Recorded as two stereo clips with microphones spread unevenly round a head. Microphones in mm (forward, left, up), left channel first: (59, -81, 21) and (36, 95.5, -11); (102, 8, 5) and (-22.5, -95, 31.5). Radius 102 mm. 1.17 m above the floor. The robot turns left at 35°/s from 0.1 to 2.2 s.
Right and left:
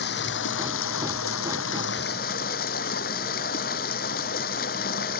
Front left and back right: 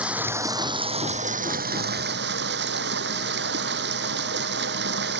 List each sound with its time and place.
0.0 s running water: 60° right; by 5.2 s 130° right